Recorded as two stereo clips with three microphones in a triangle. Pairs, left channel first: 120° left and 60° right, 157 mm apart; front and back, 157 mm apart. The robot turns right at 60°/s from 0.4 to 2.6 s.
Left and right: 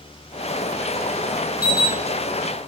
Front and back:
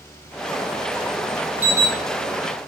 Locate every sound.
1.6 s an alarm: 100° left, 1.3 m; by 1.9 s 120° left, 1.3 m